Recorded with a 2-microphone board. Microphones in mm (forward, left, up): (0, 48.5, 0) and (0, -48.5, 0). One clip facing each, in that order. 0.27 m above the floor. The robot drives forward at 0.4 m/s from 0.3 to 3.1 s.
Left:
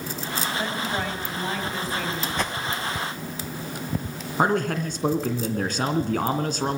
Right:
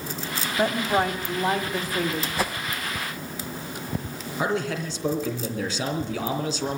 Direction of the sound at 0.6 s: 40° right (ahead or behind).